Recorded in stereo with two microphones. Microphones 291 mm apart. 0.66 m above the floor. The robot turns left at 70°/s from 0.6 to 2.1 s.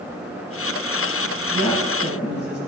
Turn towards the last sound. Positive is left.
turn(degrees=-140)